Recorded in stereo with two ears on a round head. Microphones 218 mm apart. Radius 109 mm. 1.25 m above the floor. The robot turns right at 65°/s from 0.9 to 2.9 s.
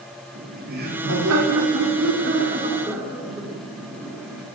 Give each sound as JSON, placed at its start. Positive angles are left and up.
{"t": 0.3, "sound": "laughter", "azimuth_deg": -140, "distance_m": 4.0}